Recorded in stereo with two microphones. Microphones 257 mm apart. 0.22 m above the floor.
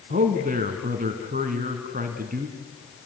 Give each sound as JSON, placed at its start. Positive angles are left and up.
{"t": 0.1, "sound": "a man speaking", "side_deg": -35, "distance_m": 2.5}